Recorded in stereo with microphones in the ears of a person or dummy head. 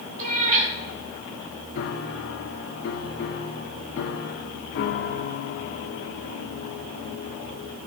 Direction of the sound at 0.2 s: 40° right (ahead or behind).